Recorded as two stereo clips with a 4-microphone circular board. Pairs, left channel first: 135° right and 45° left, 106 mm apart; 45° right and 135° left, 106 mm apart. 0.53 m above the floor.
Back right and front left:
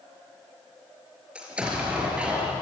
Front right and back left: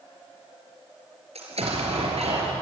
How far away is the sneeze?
No sneeze in this recording.